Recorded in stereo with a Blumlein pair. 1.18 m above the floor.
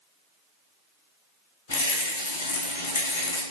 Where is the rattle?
60° left, 0.8 m.